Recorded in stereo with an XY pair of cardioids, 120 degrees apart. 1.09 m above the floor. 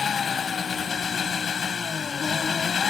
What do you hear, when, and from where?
0.0 s an engine running: 35° left